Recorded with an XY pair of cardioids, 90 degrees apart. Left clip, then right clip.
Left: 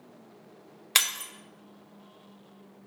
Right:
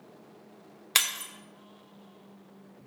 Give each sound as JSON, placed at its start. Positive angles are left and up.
{"t": 0.9, "sound": "breaking glass", "azimuth_deg": 10, "distance_m": 0.9}